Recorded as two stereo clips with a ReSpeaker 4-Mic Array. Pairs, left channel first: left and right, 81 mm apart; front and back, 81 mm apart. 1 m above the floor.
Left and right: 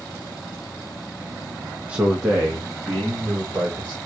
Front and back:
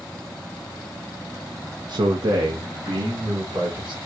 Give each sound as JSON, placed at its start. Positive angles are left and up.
{"t": 1.9, "sound": "a man speaking", "azimuth_deg": -165, "distance_m": 0.6}